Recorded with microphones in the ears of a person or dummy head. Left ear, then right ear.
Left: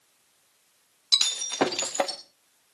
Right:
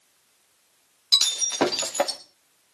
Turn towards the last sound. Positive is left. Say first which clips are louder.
# right 3 dB
turn(degrees=10)  # may be behind; listen again after turning